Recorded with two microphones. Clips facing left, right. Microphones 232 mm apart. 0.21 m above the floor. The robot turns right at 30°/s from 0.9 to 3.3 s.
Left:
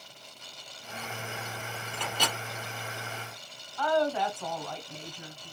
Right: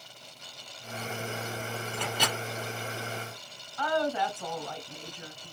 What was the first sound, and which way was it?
A microwave, 5° right (ahead or behind).